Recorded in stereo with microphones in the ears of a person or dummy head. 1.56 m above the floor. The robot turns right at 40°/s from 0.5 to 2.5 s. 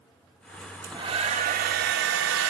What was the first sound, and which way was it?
A hair dryer, 175° right.